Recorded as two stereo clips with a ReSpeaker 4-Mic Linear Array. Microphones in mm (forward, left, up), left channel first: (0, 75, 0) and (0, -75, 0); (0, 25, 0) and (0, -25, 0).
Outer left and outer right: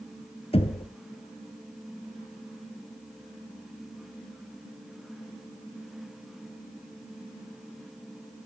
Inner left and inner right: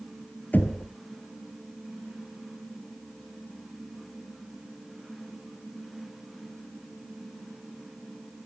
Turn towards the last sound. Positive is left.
turn(degrees=35)  # may be behind; listen again after turning